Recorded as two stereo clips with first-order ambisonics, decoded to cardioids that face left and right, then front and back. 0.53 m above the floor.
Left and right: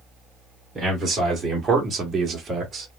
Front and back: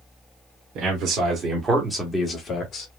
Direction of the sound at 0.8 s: 170° right.